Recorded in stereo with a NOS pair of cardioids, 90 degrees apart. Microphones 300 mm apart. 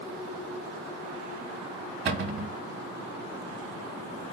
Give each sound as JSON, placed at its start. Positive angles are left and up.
{"t": 2.0, "sound": "a cupboard door", "azimuth_deg": -45, "distance_m": 1.0}